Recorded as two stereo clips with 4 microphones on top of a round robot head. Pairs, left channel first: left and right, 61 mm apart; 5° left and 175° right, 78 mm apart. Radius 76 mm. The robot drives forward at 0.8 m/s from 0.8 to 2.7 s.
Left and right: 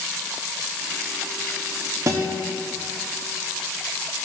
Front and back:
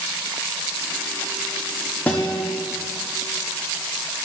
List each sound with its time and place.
2.1 s a guitar: 70° right, 0.9 m; by 2.4 s 90° right, 0.9 m